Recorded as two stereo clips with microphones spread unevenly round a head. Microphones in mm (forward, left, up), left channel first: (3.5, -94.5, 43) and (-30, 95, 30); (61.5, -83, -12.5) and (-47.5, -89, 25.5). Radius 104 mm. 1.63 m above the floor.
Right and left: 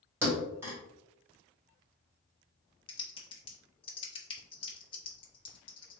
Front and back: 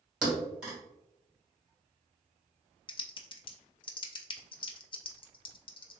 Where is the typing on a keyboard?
40° right, 0.5 m.